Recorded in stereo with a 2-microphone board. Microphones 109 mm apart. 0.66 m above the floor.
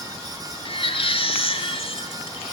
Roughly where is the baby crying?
Left.